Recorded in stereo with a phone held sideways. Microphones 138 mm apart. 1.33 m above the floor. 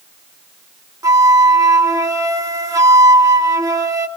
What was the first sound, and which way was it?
A flute, 25° right (ahead or behind).